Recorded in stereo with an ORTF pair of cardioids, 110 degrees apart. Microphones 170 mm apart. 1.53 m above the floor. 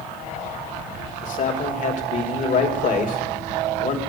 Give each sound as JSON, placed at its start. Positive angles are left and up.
{"t": 1.2, "sound": "a man speaking", "azimuth_deg": 50, "distance_m": 3.0}